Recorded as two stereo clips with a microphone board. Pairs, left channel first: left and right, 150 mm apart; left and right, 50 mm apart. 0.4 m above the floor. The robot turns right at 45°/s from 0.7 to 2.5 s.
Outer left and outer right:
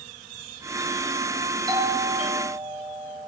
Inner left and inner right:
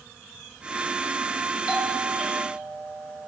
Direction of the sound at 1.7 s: 30° right.